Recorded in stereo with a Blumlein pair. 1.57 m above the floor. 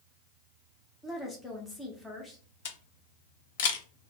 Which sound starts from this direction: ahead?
A woman speaking, at 1.0 s.